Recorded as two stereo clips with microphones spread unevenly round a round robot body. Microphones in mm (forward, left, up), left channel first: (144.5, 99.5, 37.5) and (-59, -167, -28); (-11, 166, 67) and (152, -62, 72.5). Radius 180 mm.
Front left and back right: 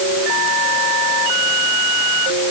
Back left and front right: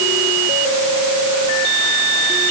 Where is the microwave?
No microwave in this recording.